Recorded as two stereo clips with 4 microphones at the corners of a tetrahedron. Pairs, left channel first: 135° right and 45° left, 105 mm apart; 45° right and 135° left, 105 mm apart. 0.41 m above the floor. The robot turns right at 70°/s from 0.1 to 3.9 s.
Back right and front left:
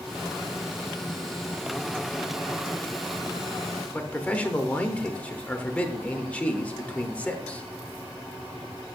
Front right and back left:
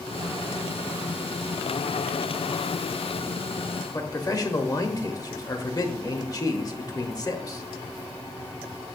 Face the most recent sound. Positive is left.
turn(degrees=-65)